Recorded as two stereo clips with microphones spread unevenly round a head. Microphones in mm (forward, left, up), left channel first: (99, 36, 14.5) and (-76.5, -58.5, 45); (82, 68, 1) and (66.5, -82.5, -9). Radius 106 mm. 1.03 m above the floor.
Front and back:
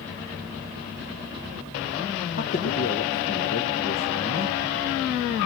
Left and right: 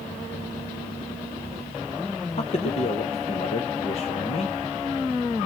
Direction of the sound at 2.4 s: 40° left.